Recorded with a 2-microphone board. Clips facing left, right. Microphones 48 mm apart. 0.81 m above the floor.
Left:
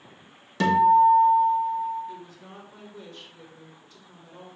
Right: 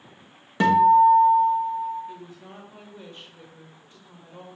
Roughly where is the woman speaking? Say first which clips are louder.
Even; right.